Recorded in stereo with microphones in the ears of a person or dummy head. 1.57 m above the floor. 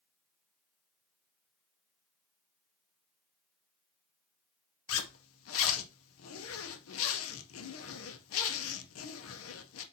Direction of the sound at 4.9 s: 75° left (ahead or behind).